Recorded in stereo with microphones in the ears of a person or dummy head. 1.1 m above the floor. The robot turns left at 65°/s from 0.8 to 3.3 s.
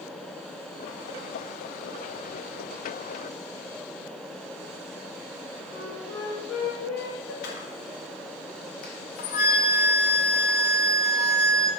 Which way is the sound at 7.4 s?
55° left (ahead or behind).